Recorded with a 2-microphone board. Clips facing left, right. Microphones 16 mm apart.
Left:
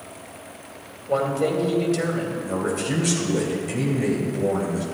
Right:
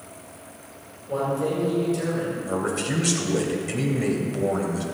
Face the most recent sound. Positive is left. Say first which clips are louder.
# left 2 dB
turn(degrees=-15)  # may be behind; listen again after turning